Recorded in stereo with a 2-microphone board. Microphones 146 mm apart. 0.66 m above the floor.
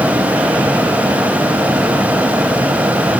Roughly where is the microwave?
I don't hear a microwave.